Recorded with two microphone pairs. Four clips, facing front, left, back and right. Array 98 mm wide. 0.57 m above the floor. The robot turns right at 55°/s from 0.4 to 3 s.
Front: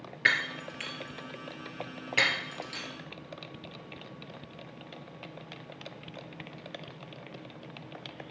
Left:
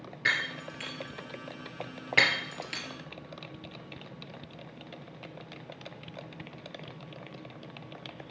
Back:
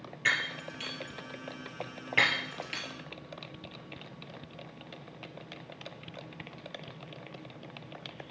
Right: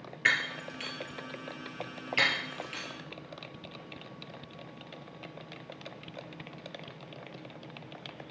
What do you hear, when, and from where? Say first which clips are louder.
0.2 s breaking glass: right 1 dB, front 3 dB; 5° right, 1.7 m; by 2.8 s 130° left, 1.7 m